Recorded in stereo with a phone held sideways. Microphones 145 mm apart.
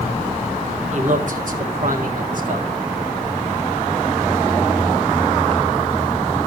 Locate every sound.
0.9 s a man speaking: 55° right (ahead or behind), 1.6 m; by 2.8 s 60° right (ahead or behind), 2 m